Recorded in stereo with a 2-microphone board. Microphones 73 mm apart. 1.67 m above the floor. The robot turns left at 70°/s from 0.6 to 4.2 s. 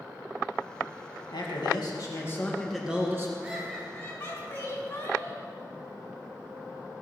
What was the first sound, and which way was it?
A man speaking, 100° left.